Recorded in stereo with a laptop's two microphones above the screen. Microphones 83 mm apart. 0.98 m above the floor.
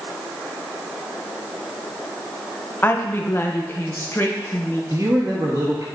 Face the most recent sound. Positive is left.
turn(degrees=-40)  # may be behind; listen again after turning